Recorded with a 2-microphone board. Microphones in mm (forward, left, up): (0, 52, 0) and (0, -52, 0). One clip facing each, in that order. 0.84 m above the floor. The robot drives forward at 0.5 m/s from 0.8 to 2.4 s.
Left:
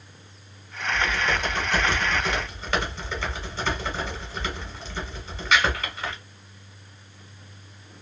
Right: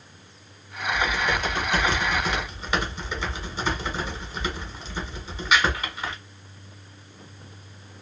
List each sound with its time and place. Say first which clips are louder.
0.9 s typing on a keyboard: even; 5° right (ahead or behind), 1.4 m; by 6.2 s 10° right (ahead or behind), 1.0 m